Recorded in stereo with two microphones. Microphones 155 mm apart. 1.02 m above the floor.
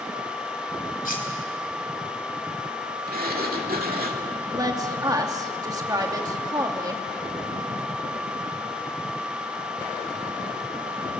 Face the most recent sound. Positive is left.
turn(degrees=-25)  # may be behind; listen again after turning